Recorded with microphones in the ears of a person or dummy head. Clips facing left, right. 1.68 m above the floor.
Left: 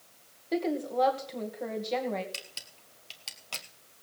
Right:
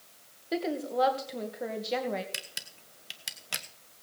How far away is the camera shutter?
About 1.1 m.